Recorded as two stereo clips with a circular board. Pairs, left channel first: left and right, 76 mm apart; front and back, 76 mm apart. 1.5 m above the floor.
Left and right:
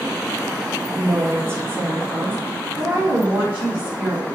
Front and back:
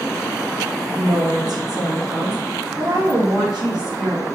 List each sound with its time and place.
0.9 s a woman speaking: 145° right, 2 m; by 4.3 s 155° right, 5.5 m